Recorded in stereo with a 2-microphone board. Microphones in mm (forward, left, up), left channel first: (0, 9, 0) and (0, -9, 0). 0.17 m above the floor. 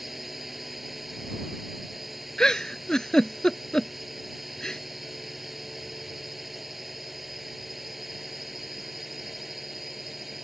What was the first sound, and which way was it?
A drone, 15° right (ahead or behind).